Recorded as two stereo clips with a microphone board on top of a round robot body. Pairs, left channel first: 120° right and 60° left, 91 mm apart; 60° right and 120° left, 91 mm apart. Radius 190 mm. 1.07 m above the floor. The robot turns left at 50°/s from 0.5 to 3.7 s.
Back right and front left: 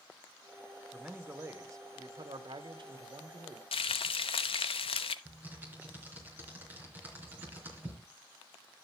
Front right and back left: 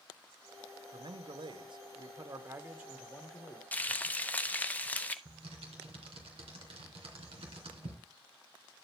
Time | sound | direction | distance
0.9 | a man speaking | 145° left | 1.4 m
3.7 | frying | 135° right | 0.7 m
5.2 | typing on a keyboard | 130° left | 3 m